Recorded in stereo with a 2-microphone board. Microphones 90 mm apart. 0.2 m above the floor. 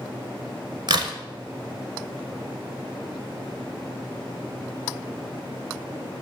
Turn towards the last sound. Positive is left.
turn(degrees=-55)  # may be behind; listen again after turning